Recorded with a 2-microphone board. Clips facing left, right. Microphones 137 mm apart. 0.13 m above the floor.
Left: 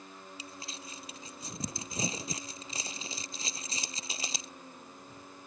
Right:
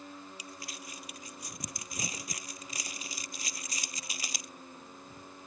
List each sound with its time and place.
0.4 s crumpling: 25° left (ahead or behind)